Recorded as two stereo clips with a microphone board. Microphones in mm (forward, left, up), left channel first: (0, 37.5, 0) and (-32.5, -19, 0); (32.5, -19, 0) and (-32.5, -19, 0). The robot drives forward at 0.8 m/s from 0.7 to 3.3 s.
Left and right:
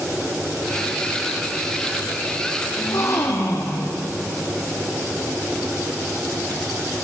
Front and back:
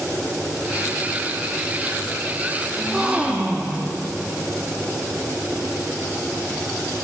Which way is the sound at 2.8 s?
100° left.